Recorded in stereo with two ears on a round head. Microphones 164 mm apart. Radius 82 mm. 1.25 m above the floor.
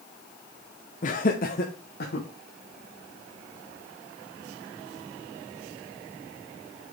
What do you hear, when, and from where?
1.0 s laughter: 45° left (ahead or behind), 0.8 m; by 2.3 s 60° left (ahead or behind), 1.4 m